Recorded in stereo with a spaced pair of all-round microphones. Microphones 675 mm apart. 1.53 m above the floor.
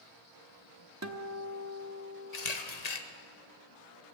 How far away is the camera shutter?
About 1.1 m.